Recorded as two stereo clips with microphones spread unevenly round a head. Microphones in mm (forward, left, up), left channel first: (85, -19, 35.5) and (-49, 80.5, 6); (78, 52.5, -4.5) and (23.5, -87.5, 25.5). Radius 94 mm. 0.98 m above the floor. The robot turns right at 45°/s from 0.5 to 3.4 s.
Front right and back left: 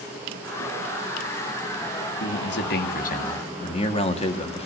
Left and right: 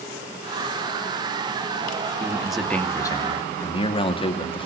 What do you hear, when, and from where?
2.2 s a man speaking: 35° right, 2.5 m; by 4.7 s 20° left, 2.5 m